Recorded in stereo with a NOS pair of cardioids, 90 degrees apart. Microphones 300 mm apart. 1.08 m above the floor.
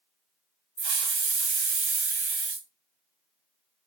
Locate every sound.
0.8 s a hiss: 40° right, 0.8 m